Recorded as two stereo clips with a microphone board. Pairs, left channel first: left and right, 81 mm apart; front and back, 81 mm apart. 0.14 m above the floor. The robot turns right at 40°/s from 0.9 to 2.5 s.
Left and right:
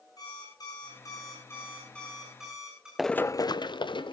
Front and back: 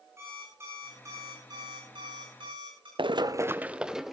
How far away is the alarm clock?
About 7 m.